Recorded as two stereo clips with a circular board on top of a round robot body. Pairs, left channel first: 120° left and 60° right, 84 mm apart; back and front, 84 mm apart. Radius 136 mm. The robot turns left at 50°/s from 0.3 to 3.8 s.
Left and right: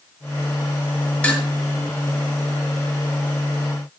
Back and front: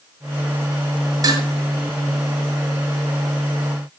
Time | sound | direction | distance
1.2 | dishes clattering | 40° left | 5.5 m